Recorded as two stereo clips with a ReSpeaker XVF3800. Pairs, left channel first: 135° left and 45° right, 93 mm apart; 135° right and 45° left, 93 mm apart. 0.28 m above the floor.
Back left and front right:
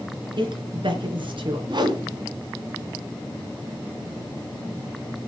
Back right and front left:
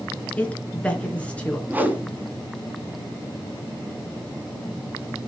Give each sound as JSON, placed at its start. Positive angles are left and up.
{"t": 0.4, "sound": "a woman speaking", "azimuth_deg": -60, "distance_m": 3.5}
{"t": 1.7, "sound": "a whoosh", "azimuth_deg": -25, "distance_m": 2.5}